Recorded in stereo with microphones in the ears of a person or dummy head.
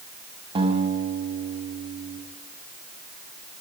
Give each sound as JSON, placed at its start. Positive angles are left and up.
{"t": 0.6, "sound": "a guitar", "side_deg": -30, "distance_m": 6.0}